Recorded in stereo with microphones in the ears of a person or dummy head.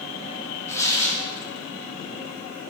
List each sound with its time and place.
0.7 s tearing paper: 15° left (ahead or behind), 0.8 m